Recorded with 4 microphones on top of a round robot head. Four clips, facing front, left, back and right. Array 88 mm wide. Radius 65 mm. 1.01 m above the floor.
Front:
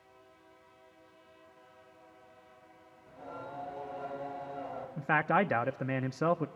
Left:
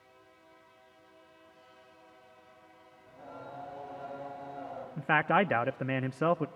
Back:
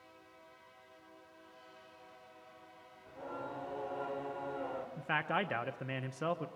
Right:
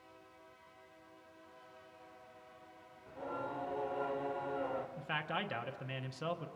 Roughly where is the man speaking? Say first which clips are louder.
Left 13 dB, front 8 dB; ahead left.